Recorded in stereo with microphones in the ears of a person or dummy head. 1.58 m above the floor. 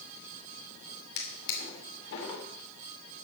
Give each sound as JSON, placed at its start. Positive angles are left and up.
{"t": 1.2, "sound": "a drawer", "side_deg": 70, "distance_m": 2.5}